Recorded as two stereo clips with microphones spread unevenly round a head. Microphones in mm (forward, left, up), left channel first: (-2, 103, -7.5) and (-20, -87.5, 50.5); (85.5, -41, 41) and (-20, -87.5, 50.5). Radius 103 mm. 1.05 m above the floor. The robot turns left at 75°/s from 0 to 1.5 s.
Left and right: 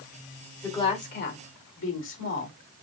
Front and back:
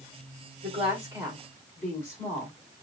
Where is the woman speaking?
165° left, 3.5 m; by 2.5 s 100° left, 3.5 m.